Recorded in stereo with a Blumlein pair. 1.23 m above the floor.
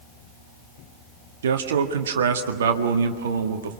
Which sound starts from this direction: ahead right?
A man speaking, at 1.4 s.